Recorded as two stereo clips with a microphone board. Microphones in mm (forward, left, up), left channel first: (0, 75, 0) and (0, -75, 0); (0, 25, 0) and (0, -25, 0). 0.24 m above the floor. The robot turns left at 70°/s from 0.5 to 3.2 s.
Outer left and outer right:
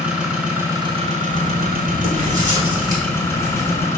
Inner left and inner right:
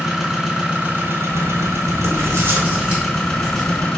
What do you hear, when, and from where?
0.0 s an engine running: 10° right, 0.7 m; by 4.0 s 160° left, 0.7 m
1.3 s writing: 40° right, 1.0 m; by 3.9 s 175° right, 1.0 m